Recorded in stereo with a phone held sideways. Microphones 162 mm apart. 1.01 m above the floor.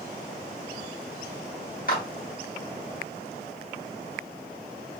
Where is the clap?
55° left (ahead or behind), 1.8 m.